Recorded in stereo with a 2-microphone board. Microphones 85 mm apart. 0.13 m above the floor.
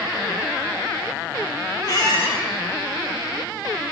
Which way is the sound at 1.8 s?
50° left (ahead or behind).